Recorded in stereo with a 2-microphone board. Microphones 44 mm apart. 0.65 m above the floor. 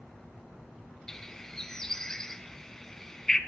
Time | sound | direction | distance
1.1 | a bird | 10° left (ahead or behind) | 1.1 m